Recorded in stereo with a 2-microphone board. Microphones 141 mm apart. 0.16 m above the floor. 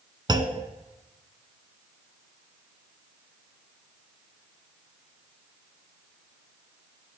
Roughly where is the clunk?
Right.